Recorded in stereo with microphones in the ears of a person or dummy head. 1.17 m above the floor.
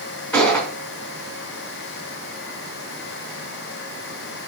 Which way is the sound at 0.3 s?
5° left (ahead or behind).